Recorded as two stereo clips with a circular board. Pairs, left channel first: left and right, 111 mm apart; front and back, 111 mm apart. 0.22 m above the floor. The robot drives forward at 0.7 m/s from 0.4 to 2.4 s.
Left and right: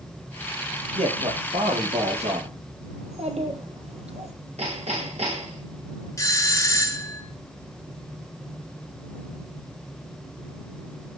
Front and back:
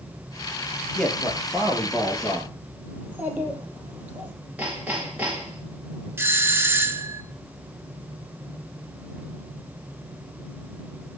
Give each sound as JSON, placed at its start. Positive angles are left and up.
{"t": 0.9, "sound": "a man speaking", "azimuth_deg": -80, "distance_m": 4.5}
{"t": 3.0, "sound": "a child speaking", "azimuth_deg": -105, "distance_m": 4.5}
{"t": 4.6, "sound": "hammering", "azimuth_deg": -100, "distance_m": 6.5}
{"t": 6.2, "sound": "a doorbell", "azimuth_deg": 125, "distance_m": 1.7}